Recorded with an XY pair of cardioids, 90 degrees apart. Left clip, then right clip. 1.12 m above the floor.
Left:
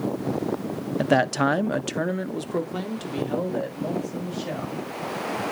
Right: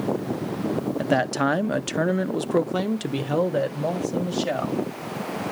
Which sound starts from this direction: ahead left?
A man speaking, at 1.0 s.